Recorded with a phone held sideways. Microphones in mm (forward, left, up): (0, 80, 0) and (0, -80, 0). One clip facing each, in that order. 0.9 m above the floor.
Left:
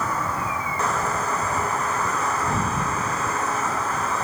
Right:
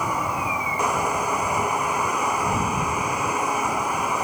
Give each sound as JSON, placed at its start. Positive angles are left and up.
{"t": 0.0, "sound": "a machine running", "side_deg": -10}